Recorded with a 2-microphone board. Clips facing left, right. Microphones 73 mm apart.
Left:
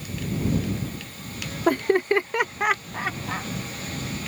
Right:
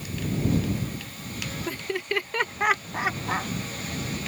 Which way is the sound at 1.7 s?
60° left (ahead or behind).